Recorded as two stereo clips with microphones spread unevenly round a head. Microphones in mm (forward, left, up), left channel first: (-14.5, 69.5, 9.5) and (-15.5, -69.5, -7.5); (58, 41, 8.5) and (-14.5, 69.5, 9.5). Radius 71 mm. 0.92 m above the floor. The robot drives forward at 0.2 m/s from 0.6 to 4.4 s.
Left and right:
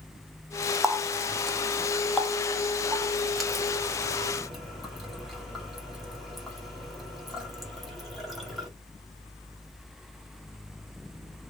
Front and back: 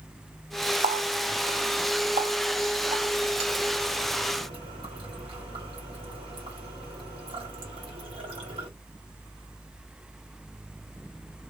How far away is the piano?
No piano in this recording.